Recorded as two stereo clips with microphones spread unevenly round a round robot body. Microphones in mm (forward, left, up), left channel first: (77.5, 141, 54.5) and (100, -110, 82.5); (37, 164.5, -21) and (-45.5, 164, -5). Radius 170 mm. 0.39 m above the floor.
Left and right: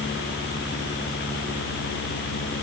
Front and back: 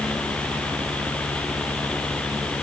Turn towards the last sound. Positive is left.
No sound to turn to.